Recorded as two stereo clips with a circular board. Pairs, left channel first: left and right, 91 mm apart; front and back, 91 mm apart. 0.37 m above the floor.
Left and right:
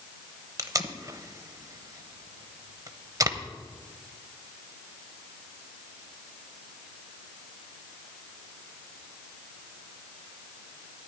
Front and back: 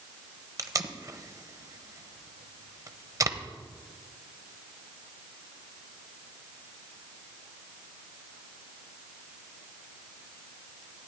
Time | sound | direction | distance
0.6 | tape being pulled | 135° right | 0.7 m